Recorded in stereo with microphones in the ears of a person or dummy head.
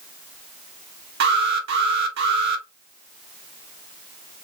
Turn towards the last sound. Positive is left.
turn(degrees=-65)  # may be behind; listen again after turning